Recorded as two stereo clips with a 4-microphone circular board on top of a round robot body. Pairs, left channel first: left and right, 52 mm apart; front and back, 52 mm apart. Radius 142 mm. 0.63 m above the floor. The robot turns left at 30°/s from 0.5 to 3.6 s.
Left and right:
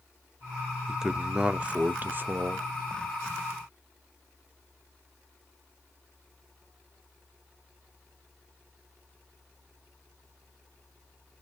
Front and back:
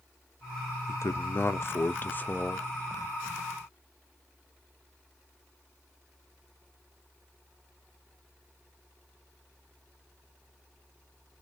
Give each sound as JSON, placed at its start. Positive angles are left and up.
{"t": 0.9, "sound": "a man speaking", "azimuth_deg": -5, "distance_m": 0.7}